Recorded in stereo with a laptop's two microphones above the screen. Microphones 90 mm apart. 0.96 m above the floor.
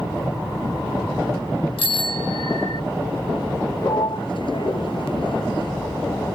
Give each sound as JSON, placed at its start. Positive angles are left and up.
{"t": 1.8, "sound": "a bicycle bell", "side_deg": 75}
{"t": 3.8, "sound": "a sliding door", "side_deg": 65}